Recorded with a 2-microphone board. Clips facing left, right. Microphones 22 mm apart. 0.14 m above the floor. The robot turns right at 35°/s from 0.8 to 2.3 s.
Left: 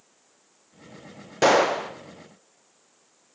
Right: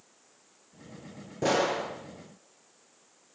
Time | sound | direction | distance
1.4 | a gunshot | 70° left (ahead or behind) | 2.5 m